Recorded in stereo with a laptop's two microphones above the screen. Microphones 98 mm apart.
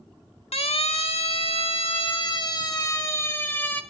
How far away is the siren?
About 2.5 m.